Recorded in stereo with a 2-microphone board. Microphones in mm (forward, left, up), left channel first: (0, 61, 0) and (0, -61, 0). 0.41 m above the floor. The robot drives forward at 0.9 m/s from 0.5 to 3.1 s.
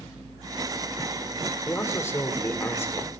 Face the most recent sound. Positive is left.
turn(degrees=20)  # may be behind; listen again after turning